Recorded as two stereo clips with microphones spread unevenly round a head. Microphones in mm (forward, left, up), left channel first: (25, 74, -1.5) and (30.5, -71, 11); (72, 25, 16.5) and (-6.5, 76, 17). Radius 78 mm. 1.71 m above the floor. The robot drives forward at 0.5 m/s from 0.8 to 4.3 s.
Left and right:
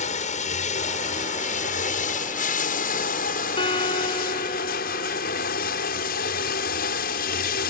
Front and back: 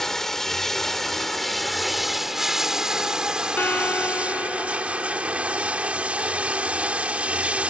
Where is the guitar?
35° left; by 5.5 s 40° left.